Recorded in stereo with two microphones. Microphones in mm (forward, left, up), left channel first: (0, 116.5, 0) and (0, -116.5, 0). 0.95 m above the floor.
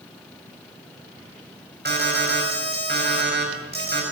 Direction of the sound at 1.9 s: 45° right (ahead or behind).